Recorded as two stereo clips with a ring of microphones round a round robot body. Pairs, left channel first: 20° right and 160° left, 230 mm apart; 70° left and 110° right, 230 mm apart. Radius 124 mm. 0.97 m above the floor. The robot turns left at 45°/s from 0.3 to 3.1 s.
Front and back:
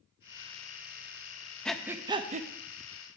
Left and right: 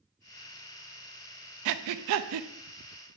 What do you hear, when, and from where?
1.6 s breathing: 110° right, 0.5 m; by 2.5 s 145° right, 0.5 m